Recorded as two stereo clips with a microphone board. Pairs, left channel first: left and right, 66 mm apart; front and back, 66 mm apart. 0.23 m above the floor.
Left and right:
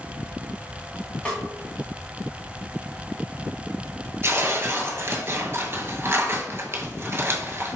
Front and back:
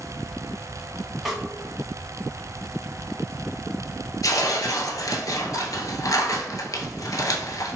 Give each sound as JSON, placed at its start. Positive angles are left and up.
{"t": 1.2, "sound": "a snare drum", "azimuth_deg": 100, "distance_m": 1.3}
{"t": 4.2, "sound": "tearing paper", "azimuth_deg": -35, "distance_m": 0.6}